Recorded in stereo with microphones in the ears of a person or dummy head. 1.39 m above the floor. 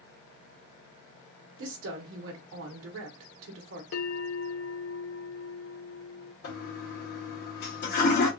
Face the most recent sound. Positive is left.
turn(degrees=55)  # may be behind; listen again after turning